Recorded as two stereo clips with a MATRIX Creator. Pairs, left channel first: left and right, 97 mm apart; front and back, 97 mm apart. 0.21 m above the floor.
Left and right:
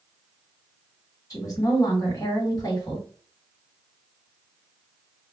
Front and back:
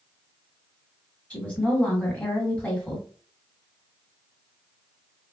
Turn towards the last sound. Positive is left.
turn(degrees=70)